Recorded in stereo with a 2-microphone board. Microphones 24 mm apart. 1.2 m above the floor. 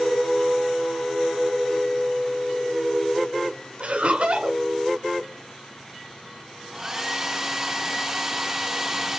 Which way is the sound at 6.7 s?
10° right (ahead or behind).